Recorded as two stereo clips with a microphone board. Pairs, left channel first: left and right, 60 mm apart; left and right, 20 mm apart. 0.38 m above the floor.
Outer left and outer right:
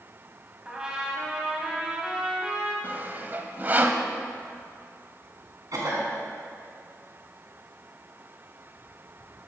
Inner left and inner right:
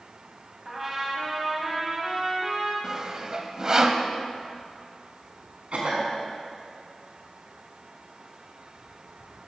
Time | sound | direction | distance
0.7 | a trumpet | 15° right (ahead or behind) | 2.5 m
2.8 | sawing | 30° right (ahead or behind) | 1.0 m
5.7 | a cough | 70° right (ahead or behind) | 4 m